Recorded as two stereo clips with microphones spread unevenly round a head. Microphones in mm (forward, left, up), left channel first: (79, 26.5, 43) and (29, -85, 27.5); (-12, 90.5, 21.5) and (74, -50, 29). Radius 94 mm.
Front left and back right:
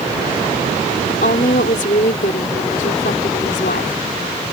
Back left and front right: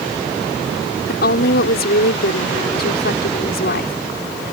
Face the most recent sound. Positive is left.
turn(degrees=100)